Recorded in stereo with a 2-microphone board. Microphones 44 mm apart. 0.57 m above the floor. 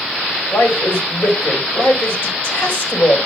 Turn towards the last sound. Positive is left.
turn(degrees=70)  # may be behind; listen again after turning